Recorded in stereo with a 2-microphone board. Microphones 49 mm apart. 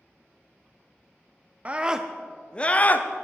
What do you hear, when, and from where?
1.6 s a scream: 30° right (ahead or behind), 0.5 m; by 3.2 s 40° left (ahead or behind), 0.8 m